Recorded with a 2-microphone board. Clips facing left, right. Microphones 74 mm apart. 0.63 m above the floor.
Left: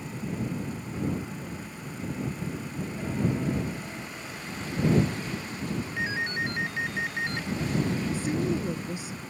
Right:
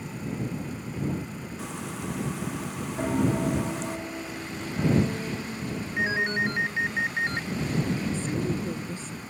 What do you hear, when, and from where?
1.6 s frying: 90° right
3.0 s a piano: 50° right (ahead or behind)
6.0 s a ringtone: 25° right (ahead or behind)
8.1 s a woman speaking: 10° left (ahead or behind)